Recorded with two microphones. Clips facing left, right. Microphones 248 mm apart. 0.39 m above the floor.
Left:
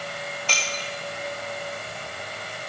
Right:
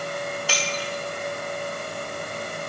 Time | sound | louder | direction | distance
0.5 | breaking glass | right 4 dB | 10° right (ahead or behind) | 4 m